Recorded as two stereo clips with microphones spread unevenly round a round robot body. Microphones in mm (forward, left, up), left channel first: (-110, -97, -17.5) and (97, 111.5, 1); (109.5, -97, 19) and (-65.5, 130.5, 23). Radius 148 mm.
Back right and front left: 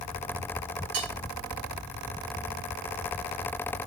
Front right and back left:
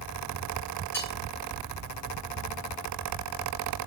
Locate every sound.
0.9 s cutlery clinking: 30° left, 1.5 m